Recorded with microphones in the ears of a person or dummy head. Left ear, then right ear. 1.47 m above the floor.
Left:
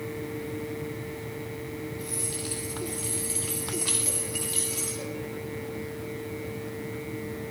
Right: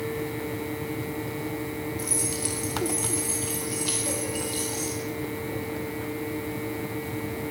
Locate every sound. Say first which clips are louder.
2.0 s keys jangling: right 4 dB; 45° right (ahead or behind), 4 m; by 5.0 s 30° left (ahead or behind), 3.5 m